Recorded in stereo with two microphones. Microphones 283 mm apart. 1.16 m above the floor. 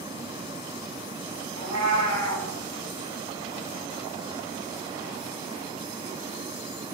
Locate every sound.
1.6 s a cat meowing: 80° right, 5.5 m